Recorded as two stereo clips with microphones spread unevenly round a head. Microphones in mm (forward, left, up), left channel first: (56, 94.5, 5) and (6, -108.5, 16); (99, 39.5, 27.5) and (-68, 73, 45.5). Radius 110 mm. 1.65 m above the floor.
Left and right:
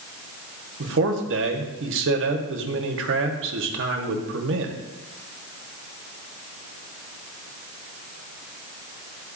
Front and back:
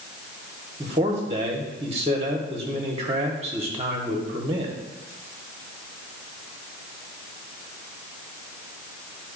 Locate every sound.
0.8 s a man speaking: 130° right, 1.0 m